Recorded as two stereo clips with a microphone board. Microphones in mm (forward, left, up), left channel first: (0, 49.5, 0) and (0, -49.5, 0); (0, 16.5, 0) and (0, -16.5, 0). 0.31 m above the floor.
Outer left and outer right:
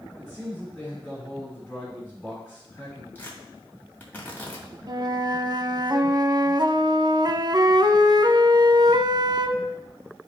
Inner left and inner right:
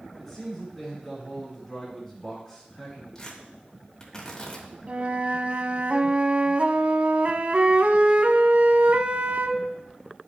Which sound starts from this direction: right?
A flute, at 4.9 s.